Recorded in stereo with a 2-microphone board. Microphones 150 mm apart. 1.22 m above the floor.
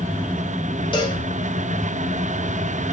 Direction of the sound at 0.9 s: 30° left (ahead or behind).